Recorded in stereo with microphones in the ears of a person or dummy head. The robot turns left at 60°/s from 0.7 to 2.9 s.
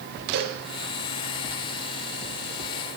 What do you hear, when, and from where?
0.3 s a cowbell: 55° right (ahead or behind), 1.0 m